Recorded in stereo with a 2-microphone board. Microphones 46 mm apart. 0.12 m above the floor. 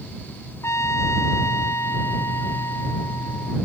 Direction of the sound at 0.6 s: 85° left.